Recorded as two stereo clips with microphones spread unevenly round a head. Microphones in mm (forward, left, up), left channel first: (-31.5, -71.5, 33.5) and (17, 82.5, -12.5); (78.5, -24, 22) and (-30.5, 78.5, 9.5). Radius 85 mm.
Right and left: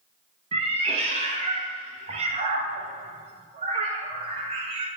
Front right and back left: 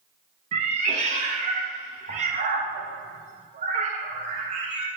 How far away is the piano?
No piano in this recording.